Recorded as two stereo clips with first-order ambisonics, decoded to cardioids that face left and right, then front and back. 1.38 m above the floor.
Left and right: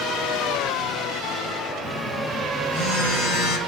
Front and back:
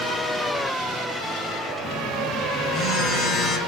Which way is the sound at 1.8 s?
60° left.